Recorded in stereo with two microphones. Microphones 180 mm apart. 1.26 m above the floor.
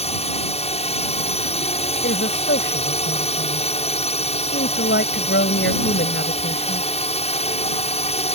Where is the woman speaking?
80° left.